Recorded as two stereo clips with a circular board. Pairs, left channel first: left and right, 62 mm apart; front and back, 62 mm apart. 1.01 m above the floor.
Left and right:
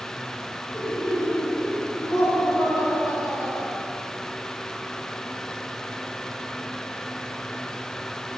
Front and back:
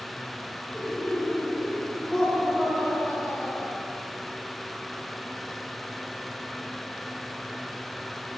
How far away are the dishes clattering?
No dishes clattering in this recording.